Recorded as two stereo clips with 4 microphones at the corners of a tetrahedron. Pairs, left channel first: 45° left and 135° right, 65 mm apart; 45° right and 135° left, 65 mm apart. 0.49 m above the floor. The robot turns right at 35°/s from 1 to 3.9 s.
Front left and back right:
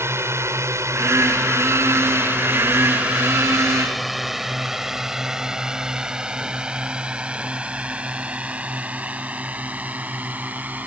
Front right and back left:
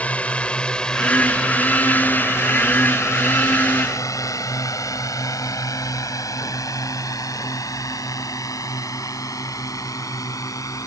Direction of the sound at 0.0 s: 105° right.